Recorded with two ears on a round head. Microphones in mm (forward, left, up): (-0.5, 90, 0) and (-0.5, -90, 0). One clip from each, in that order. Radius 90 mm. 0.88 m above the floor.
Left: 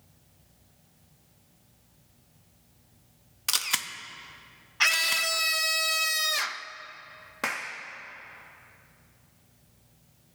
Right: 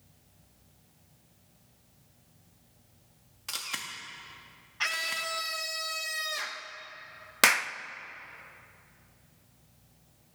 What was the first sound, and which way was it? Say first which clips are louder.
A camera shutter: left 8 dB; 40° left (ahead or behind).